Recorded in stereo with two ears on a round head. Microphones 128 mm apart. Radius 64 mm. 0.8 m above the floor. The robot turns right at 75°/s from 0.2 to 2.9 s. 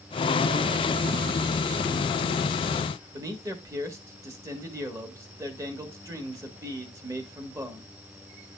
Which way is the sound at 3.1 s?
20° right (ahead or behind).